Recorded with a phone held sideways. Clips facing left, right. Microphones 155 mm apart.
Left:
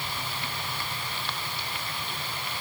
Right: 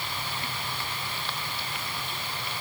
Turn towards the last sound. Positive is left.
No sound to turn to.